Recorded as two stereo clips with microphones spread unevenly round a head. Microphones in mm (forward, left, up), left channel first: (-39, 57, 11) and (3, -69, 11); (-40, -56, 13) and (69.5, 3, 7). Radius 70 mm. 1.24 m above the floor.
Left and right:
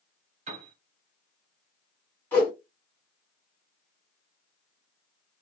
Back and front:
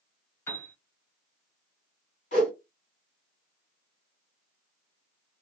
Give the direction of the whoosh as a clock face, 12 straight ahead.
6 o'clock.